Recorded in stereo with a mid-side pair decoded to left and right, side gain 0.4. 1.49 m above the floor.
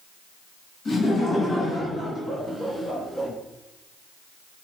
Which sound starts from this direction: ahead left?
Laughter, at 0.8 s.